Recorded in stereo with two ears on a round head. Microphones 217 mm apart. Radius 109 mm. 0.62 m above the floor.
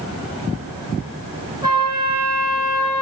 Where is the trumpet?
15° right (ahead or behind), 3.5 m.